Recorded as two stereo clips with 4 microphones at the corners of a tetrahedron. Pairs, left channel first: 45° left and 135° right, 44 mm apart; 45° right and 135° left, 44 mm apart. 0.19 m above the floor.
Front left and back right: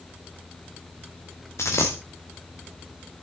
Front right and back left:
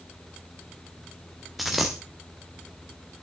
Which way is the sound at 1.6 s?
50° left.